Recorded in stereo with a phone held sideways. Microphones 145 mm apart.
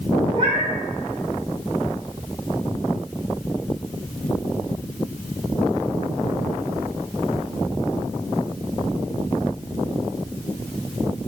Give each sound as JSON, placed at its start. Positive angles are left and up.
{"t": 0.3, "sound": "a cat meowing", "side_deg": -45, "distance_m": 1.1}